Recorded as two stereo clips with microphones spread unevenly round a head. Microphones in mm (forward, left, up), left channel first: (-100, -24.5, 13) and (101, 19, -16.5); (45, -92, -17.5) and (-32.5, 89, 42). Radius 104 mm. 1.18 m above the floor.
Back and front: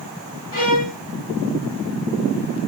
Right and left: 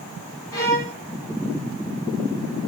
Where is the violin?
155° right, 1.3 m.